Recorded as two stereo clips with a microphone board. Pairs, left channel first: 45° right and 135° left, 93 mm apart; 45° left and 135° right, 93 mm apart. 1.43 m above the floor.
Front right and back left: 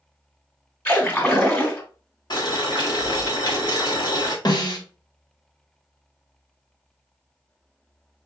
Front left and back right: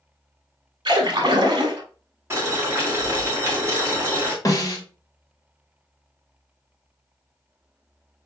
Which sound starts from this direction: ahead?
A snare drum, at 4.5 s.